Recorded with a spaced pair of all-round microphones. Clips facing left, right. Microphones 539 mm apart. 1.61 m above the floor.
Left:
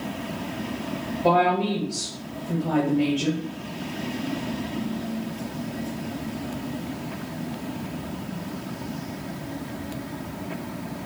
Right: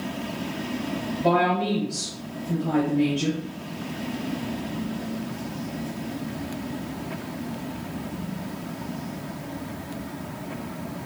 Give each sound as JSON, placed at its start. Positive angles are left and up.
{"t": 1.2, "sound": "a woman speaking", "side_deg": -40, "distance_m": 1.1}